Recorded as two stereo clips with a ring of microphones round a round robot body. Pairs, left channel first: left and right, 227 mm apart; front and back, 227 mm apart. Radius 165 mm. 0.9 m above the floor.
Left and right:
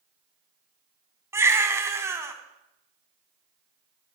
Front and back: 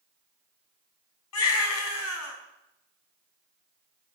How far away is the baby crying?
About 4.5 m.